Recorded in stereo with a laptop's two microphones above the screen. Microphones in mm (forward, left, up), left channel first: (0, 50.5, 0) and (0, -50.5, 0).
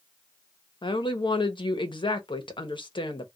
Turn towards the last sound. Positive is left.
turn(degrees=55)  # may be behind; listen again after turning